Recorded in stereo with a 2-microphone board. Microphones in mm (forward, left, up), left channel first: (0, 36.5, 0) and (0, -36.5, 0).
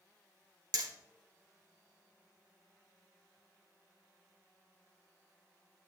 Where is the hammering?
65° right (ahead or behind), 1.9 m.